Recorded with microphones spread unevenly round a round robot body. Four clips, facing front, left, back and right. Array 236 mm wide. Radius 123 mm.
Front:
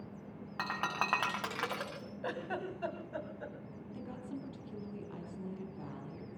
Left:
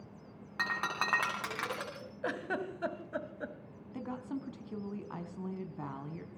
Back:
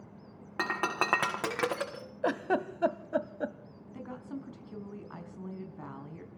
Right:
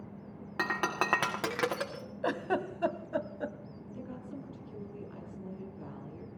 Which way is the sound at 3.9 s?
105° left.